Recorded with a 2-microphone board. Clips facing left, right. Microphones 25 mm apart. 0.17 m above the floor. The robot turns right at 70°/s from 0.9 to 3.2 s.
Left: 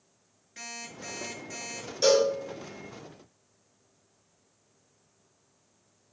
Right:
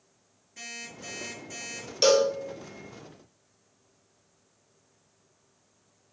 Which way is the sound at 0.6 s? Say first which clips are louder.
Even; 120° left.